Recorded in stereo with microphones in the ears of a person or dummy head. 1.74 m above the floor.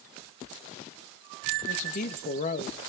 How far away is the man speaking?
About 1.7 m.